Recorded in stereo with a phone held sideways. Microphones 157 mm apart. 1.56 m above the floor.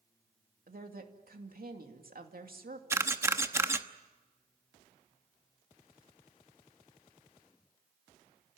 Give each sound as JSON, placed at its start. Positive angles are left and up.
{"t": 0.7, "sound": "a woman speaking", "side_deg": -70, "distance_m": 2.5}
{"t": 2.9, "sound": "a camera shutter", "side_deg": -15, "distance_m": 1.0}